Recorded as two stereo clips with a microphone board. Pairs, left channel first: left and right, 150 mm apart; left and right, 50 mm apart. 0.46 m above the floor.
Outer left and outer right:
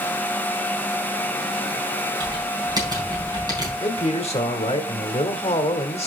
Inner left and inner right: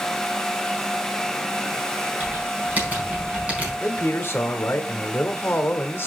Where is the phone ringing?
I don't hear a phone ringing.